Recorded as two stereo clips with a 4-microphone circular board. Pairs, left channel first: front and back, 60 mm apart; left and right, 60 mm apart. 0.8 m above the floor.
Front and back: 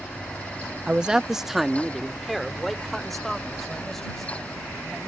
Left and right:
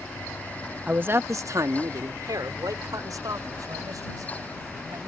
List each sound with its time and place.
0.9 s a man speaking: 130° right; by 5.1 s 85° right